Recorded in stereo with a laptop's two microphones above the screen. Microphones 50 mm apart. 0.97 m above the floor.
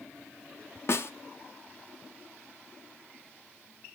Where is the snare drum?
60° left (ahead or behind), 0.6 m.